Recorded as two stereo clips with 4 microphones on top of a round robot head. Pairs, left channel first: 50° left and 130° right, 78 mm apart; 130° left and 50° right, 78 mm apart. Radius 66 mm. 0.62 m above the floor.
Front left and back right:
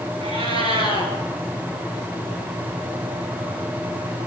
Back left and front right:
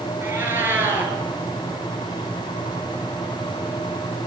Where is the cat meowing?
120° right, 7 m.